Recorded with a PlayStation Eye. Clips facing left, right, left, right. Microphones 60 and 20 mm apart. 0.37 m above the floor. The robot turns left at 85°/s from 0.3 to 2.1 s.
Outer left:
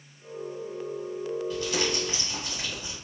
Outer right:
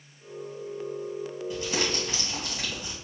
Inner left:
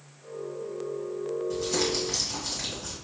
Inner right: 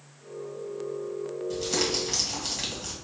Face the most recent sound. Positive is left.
turn(degrees=-65)